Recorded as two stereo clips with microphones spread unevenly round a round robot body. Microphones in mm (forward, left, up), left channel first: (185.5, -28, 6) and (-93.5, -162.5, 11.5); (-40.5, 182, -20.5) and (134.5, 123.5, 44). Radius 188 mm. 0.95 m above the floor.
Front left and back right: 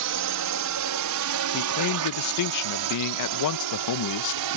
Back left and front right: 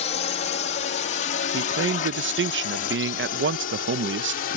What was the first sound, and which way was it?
A drone, 175° right.